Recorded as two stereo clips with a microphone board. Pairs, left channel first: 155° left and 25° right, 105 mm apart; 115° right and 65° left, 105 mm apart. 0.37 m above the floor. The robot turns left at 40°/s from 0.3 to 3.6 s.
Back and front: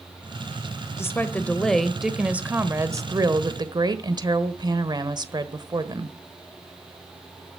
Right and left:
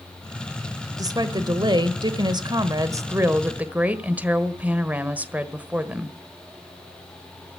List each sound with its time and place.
1.0 s a woman speaking: 105° left, 1.3 m; by 6.2 s straight ahead, 1.3 m